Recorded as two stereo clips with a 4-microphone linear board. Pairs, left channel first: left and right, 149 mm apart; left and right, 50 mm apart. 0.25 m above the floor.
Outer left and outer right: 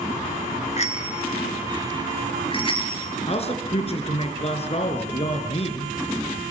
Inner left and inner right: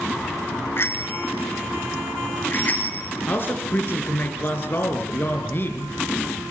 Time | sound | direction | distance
0.8 | a bicycle bell | 50° left (ahead or behind) | 2 m
3.3 | a man speaking | 45° left (ahead or behind) | 3.5 m